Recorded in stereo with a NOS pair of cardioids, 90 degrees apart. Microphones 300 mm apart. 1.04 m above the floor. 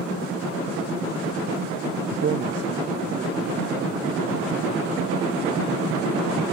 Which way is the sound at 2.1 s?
40° right.